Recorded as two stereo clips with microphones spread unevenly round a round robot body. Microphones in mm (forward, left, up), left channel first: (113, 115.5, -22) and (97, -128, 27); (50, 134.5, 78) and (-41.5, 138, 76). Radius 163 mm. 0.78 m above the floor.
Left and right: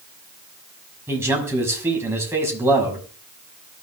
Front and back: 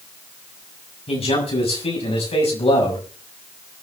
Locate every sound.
1.1 s a man speaking: 15° right, 6 m